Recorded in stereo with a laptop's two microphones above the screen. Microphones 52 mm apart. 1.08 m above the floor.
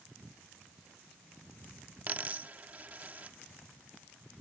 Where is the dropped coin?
35° right (ahead or behind).